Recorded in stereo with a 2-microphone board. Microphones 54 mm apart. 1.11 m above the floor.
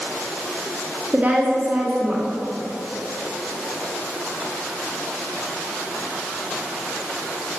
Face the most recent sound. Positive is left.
turn(degrees=-25)  # may be behind; listen again after turning